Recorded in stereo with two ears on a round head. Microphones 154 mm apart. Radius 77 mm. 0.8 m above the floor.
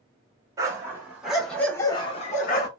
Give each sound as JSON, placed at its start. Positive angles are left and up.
{"t": 0.6, "sound": "a dog barking", "side_deg": -20, "distance_m": 1.2}